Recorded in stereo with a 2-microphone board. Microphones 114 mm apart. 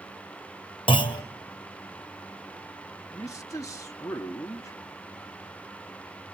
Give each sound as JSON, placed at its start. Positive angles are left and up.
{"t": 0.9, "sound": "a clunk", "side_deg": 45, "distance_m": 0.9}
{"t": 3.1, "sound": "a man speaking", "side_deg": 30, "distance_m": 0.9}